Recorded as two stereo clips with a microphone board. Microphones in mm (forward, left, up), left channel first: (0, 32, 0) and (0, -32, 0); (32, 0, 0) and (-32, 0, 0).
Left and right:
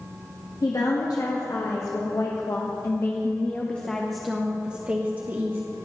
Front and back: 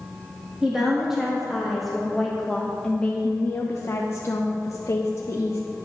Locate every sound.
0.6 s a woman speaking: 100° left, 2 m; by 5.6 s 40° right, 1.4 m